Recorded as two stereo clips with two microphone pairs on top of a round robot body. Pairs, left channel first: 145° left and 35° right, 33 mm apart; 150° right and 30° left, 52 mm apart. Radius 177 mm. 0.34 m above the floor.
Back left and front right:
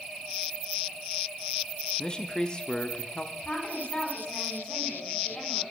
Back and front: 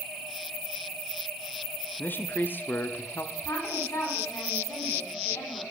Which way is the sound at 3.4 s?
160° right.